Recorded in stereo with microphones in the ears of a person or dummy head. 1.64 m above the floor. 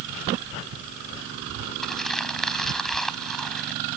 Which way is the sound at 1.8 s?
Centre (ahead or behind).